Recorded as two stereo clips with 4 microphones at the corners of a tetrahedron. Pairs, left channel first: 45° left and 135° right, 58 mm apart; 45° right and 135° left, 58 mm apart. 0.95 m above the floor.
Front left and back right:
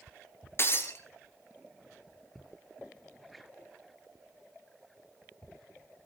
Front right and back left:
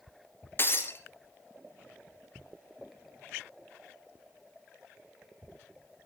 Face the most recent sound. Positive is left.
turn(degrees=5)